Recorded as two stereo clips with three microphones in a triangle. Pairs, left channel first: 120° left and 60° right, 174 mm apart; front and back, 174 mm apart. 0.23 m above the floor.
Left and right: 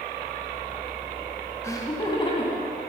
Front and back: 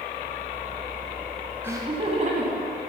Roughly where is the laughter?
Behind left.